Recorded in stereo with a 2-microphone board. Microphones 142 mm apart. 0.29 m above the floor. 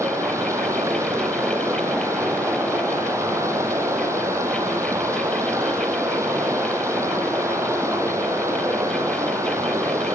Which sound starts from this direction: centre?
Running water, at 0.0 s.